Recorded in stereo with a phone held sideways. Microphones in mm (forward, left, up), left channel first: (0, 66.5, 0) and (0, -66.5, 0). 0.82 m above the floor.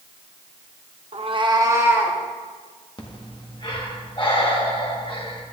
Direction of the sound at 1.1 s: 50° right (ahead or behind).